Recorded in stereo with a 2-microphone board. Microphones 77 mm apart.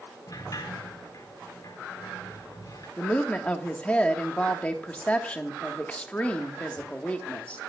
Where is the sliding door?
50° left (ahead or behind), 4 m.